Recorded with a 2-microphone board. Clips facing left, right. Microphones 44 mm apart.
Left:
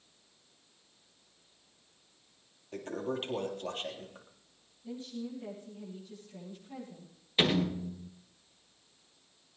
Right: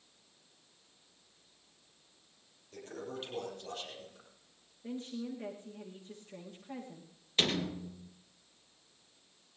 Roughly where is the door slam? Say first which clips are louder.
Left 4 dB; centre.